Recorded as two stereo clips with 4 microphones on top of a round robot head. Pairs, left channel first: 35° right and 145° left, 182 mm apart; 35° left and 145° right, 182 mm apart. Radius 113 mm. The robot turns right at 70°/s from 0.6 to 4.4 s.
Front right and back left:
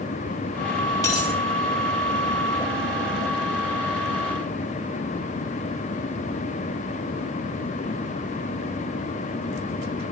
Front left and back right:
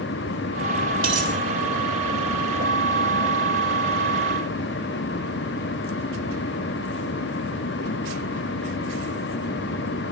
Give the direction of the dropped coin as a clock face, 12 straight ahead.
4 o'clock.